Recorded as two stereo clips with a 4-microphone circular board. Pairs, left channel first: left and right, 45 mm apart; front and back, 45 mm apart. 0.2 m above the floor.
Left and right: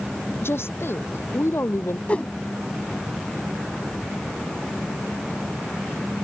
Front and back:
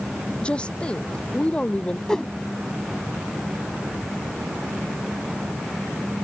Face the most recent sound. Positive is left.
turn(degrees=65)